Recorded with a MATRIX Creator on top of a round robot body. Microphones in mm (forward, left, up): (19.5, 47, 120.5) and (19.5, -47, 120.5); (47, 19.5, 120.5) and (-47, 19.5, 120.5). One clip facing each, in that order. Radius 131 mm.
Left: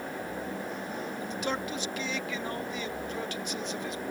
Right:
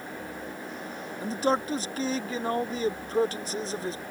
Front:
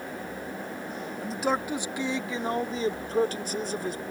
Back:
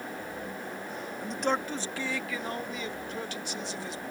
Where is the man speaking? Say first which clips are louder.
Right 9 dB, front 2 dB; 90° right; by 4.0 s 35° right.